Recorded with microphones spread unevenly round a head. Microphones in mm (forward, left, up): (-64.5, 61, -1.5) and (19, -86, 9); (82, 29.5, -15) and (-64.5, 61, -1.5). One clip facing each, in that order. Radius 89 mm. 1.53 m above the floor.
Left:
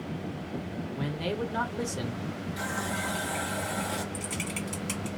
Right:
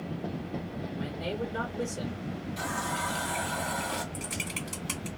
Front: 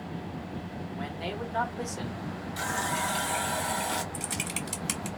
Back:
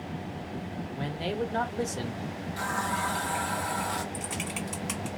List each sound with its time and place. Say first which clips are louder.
0.9 s a man speaking: left 3 dB, back 5 dB; 115° left, 1.0 m
2.6 s a running tap: left 1 dB, back 1 dB; 40° left, 0.6 m
4.1 s typing on a keyboard: left 3 dB, back 1 dB; 30° left, 1.8 m